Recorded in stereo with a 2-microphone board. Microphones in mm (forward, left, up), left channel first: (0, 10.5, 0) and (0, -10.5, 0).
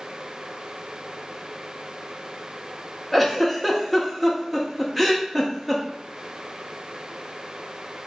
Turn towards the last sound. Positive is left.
turn(degrees=5)  # may be behind; listen again after turning